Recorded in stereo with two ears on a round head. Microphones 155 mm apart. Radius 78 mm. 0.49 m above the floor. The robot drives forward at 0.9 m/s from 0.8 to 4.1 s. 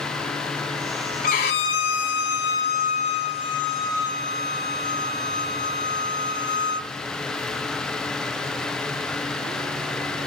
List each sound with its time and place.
1.2 s a violin: 50° left (ahead or behind), 1.1 m; by 6.9 s 25° left (ahead or behind), 2 m